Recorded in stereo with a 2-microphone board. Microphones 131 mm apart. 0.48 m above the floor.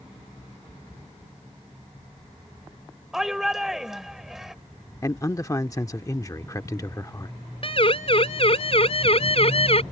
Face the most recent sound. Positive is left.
turn(degrees=50)  # may be behind; listen again after turning